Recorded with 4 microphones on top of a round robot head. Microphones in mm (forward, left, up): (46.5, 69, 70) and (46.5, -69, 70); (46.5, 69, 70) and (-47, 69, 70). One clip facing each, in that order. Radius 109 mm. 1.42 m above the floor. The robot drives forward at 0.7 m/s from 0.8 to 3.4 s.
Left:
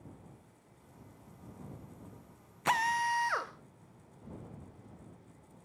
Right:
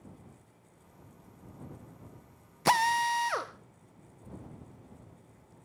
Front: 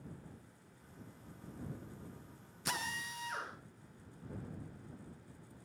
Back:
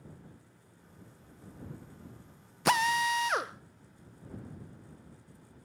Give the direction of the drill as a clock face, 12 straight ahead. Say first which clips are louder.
Right 4 dB, back 15 dB; 5 o'clock.